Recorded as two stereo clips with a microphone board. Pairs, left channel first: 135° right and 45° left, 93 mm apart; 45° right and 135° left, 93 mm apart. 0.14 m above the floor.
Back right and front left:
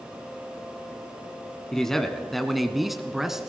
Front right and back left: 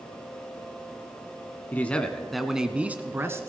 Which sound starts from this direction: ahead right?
A man speaking, at 1.7 s.